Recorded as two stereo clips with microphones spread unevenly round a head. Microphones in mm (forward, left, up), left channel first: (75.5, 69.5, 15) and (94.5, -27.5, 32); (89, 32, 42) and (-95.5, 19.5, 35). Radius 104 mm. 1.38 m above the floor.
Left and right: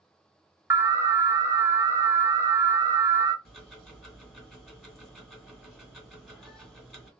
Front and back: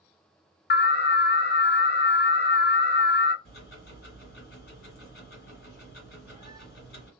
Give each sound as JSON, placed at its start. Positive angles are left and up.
{"t": 0.7, "sound": "an alarm", "azimuth_deg": -15, "distance_m": 0.6}
{"t": 3.5, "sound": "ticking", "azimuth_deg": 0, "distance_m": 1.6}